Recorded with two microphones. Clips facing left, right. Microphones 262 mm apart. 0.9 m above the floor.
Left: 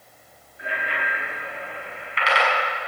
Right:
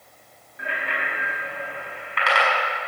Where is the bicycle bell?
75° right (ahead or behind), 5.5 m; by 2.5 s 55° right (ahead or behind), 5.5 m.